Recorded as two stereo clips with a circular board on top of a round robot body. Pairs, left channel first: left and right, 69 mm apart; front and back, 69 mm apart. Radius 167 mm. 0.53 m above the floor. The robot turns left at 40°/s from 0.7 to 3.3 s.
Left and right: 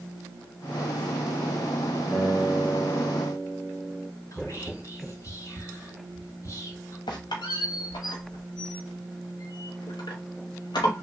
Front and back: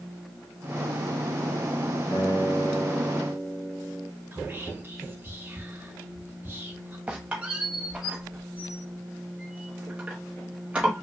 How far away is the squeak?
About 0.9 m.